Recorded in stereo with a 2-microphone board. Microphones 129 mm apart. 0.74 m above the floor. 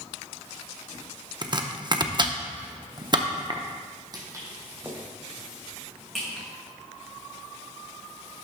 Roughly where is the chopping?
Right.